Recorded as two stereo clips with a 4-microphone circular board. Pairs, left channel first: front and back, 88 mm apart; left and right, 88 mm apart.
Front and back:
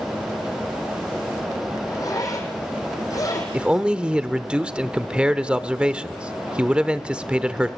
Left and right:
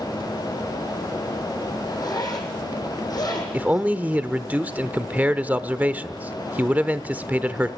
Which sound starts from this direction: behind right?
A man speaking, at 3.5 s.